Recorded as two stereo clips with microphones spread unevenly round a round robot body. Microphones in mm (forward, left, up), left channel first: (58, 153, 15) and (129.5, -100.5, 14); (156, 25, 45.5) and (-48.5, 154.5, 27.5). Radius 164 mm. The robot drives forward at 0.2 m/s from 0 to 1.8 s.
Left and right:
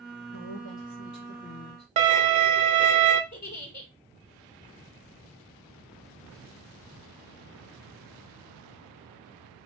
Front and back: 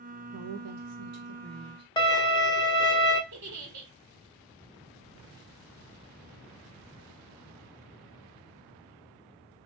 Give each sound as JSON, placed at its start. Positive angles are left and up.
{"t": 0.3, "sound": "a woman speaking", "azimuth_deg": 155, "distance_m": 0.6}
{"t": 2.0, "sound": "a violin", "azimuth_deg": -95, "distance_m": 0.6}
{"t": 3.3, "sound": "a giggle", "azimuth_deg": 150, "distance_m": 1.2}